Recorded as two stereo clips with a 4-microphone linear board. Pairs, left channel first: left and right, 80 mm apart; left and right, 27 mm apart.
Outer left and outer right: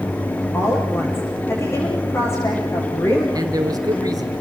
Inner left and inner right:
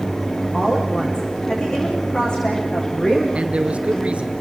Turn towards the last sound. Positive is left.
turn(degrees=-50)  # may be behind; listen again after turning